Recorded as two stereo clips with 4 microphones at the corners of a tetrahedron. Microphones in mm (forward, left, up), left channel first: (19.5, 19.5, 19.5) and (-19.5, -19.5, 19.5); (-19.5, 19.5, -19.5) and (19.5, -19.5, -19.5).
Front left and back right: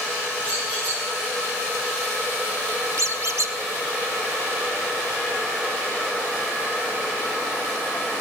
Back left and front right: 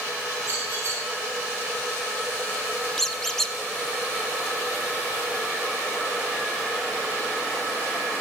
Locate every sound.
0.4 s a squeak: 15° right, 8.5 m
3.0 s a squeak: 140° right, 0.9 m